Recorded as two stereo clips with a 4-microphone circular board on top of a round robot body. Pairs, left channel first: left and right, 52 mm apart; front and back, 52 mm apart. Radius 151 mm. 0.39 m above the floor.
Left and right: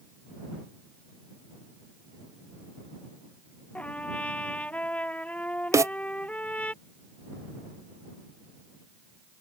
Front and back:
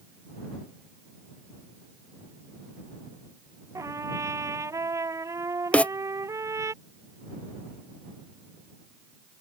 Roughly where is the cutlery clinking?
No cutlery clinking in this recording.